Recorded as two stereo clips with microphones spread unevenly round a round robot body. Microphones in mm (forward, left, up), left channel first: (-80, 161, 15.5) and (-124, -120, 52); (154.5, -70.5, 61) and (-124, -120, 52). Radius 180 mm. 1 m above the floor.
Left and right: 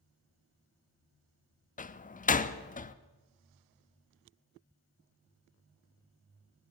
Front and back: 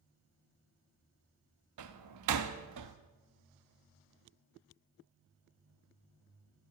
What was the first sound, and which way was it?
A door slam, 145° left.